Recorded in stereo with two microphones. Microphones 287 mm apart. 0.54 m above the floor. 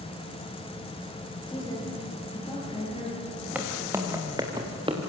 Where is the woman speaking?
15° left (ahead or behind), 9.5 m; by 3.3 s 25° left (ahead or behind), 8.5 m.